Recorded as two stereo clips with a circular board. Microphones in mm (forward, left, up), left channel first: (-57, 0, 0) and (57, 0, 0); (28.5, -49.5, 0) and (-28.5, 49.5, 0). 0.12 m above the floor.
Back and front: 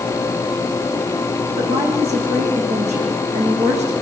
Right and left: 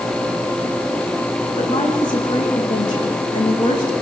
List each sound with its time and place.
1.6 s a woman speaking: 10° right, 7 m